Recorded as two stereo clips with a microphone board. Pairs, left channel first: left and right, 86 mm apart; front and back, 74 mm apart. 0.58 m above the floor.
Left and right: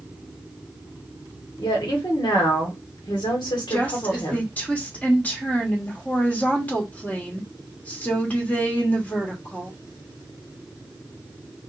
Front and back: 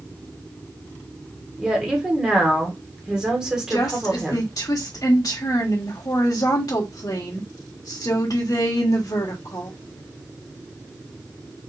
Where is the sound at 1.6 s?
100° left, 1.3 m.